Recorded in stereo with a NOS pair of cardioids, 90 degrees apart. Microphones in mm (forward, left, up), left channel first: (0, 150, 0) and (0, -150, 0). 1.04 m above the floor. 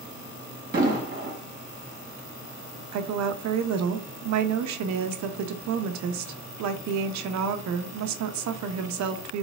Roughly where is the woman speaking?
Right.